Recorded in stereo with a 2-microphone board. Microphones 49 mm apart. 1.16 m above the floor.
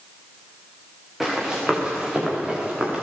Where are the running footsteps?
5° right (ahead or behind), 9.5 m; by 3.0 s 15° right (ahead or behind), 11 m.